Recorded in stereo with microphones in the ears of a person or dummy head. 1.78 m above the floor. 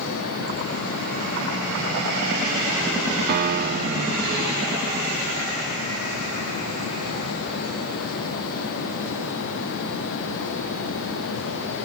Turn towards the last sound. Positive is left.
turn(degrees=-55)  # may be behind; listen again after turning